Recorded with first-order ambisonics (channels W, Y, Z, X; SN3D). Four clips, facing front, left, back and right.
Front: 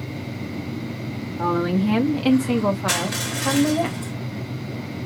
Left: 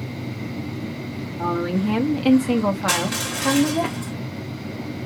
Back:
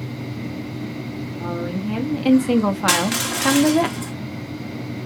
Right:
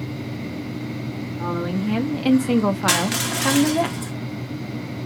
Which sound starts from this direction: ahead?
A woman speaking, at 1.4 s.